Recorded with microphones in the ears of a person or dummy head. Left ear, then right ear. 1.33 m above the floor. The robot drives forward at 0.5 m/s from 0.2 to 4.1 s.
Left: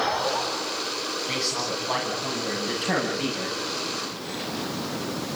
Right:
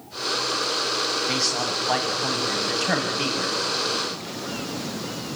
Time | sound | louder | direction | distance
1.3 | a man speaking | right 3 dB | 50° right (ahead or behind) | 9 m